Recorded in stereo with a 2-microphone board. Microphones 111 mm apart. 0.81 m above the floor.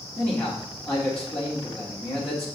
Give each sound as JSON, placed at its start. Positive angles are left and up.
{"t": 0.2, "sound": "a man speaking", "side_deg": 10, "distance_m": 1.3}